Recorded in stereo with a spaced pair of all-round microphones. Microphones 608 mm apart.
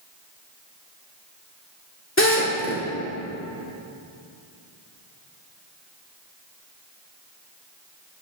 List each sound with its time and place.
2.2 s a drill: 20° left (ahead or behind), 1.8 m